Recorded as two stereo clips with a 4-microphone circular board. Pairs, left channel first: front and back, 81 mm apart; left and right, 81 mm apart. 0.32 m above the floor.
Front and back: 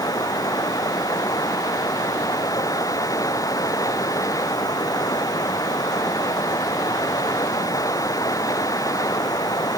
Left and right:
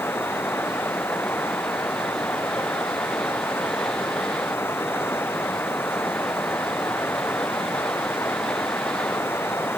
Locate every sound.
0.0 s running water: 30° left